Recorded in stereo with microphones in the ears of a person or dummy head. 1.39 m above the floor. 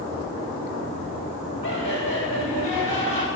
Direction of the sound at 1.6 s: 50° right (ahead or behind).